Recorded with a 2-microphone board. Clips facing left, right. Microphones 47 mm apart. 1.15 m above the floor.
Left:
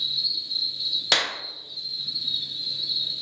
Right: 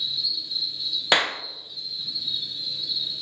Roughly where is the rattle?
No rattle in this recording.